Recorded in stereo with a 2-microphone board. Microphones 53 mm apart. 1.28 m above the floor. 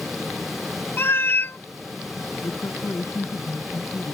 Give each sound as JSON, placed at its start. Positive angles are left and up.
{"t": 1.0, "sound": "a cat meowing", "side_deg": 40}
{"t": 2.4, "sound": "a woman speaking", "side_deg": 55}